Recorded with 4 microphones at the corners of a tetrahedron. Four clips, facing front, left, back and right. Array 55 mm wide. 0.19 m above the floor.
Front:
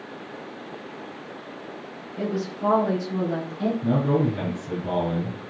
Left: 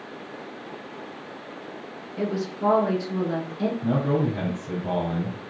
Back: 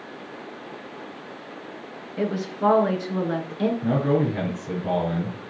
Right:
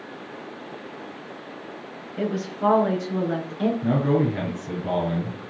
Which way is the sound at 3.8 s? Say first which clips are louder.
Right 2 dB, front 1 dB; 130° right.